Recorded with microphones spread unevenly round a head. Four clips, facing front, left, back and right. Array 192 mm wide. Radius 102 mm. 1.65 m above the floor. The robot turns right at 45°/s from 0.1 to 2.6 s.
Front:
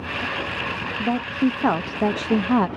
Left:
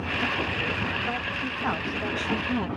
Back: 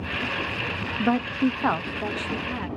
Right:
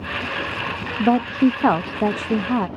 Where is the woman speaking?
95° right; by 2.7 s 25° right.